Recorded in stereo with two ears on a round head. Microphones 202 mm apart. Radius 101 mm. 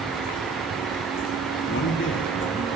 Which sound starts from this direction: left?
A man speaking, at 1.7 s.